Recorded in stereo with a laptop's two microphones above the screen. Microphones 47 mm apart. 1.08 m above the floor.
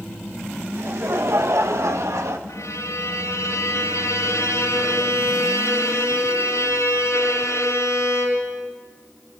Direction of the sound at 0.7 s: 50° right (ahead or behind).